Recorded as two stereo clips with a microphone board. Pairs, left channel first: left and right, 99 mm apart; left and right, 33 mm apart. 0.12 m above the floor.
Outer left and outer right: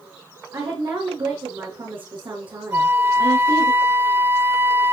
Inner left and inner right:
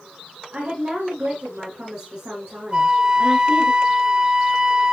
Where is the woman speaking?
60° right (ahead or behind), 5 m.